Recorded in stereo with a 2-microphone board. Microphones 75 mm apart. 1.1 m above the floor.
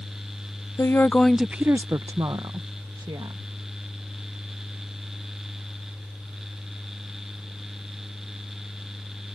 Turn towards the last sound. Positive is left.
turn(degrees=-75)  # may be behind; listen again after turning